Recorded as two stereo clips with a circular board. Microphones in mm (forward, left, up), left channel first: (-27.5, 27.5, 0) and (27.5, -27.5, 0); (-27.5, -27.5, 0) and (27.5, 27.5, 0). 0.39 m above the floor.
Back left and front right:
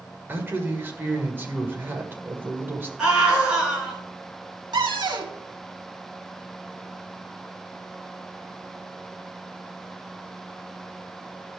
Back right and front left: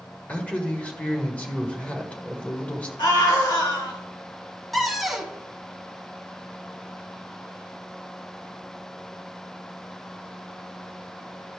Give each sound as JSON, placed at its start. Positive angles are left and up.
{"t": 0.3, "sound": "a man speaking", "azimuth_deg": -80, "distance_m": 1.6}
{"t": 3.0, "sound": "a scream", "azimuth_deg": -125, "distance_m": 4.5}
{"t": 4.7, "sound": "a cupboard door", "azimuth_deg": -45, "distance_m": 1.2}